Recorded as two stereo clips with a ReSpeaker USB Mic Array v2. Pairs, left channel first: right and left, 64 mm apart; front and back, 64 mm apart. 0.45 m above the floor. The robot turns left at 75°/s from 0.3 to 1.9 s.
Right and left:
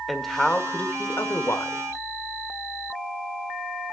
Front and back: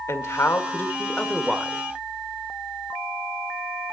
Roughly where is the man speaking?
Ahead.